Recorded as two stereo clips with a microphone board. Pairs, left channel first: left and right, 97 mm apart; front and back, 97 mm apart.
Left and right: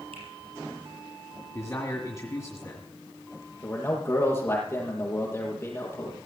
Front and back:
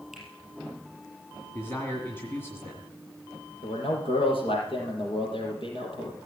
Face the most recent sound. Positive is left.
turn(degrees=25)